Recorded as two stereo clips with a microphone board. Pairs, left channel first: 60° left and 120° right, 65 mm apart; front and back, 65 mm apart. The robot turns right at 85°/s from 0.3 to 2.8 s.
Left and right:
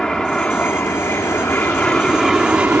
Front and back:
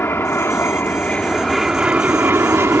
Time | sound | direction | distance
0.0 | an aircraft | 15° right | ?